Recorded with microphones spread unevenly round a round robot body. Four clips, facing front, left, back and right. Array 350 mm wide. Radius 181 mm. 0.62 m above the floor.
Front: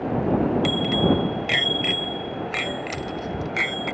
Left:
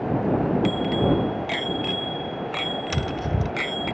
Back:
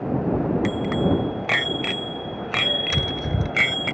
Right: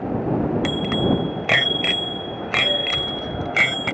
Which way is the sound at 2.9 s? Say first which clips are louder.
Left 1 dB, back 2 dB; 150° left.